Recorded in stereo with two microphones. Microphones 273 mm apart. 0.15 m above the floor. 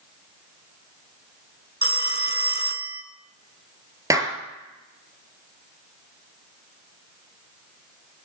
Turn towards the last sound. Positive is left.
turn(degrees=-10)  # may be behind; listen again after turning